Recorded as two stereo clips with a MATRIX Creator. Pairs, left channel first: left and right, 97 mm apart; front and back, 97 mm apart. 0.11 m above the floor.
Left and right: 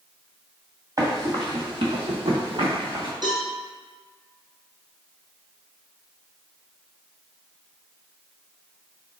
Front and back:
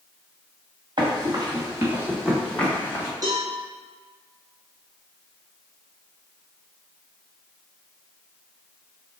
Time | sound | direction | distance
1.0 | running footsteps | 140° right | 1.6 m
3.2 | a cowbell | 130° right | 1.4 m